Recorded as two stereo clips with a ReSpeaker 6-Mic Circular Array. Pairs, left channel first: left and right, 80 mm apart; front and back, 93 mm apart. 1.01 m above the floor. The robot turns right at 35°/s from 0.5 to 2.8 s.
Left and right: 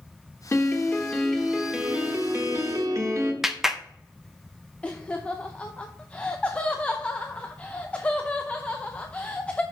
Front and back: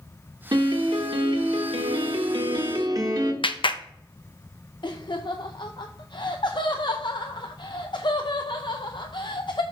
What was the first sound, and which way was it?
A piano, 145° left.